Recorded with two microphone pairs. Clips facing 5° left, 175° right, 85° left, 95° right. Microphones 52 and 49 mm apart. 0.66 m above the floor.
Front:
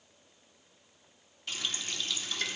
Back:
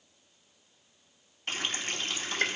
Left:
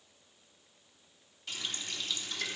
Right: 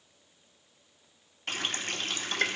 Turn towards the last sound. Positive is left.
turn(degrees=-130)